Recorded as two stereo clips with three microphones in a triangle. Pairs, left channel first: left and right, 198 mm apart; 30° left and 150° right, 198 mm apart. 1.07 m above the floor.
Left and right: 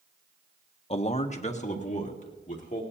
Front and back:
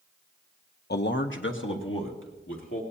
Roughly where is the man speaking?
Ahead left.